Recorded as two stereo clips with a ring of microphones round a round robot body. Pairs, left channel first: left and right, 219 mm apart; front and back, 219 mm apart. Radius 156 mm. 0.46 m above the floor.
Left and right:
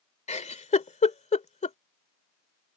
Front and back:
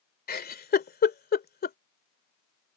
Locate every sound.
0.3 s a giggle: 35° left